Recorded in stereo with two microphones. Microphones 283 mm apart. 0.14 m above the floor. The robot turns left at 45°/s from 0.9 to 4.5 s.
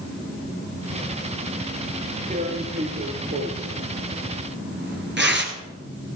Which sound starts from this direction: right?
Tearing paper, at 2.3 s.